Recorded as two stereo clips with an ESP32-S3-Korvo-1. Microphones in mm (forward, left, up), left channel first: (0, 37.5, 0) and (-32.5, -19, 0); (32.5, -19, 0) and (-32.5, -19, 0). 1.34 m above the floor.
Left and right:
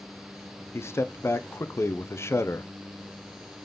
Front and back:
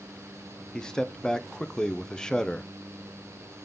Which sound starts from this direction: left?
A man speaking, at 0.7 s.